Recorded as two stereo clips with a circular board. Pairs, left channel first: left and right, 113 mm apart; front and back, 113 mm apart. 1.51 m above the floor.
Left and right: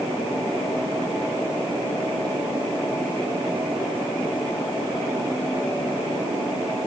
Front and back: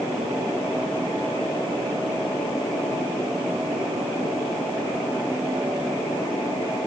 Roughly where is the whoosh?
No whoosh in this recording.